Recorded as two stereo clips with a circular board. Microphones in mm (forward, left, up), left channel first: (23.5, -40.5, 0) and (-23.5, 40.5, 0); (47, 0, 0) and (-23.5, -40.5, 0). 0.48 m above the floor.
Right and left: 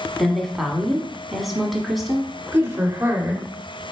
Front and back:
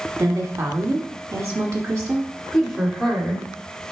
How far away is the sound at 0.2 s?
About 1.0 m.